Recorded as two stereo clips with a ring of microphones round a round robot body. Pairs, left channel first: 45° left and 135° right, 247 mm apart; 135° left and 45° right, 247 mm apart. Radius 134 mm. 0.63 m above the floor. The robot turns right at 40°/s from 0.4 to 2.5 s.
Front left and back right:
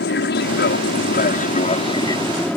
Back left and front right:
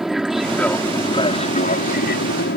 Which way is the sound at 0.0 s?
45° left.